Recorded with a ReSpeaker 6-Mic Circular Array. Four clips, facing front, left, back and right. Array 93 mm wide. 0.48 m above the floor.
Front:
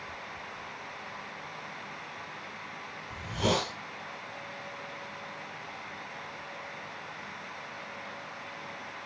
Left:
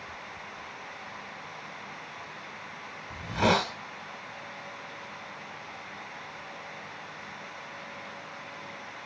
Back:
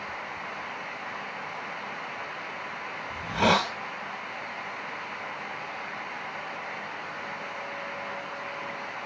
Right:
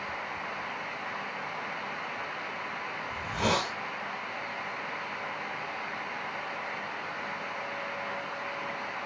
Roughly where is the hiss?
Behind left.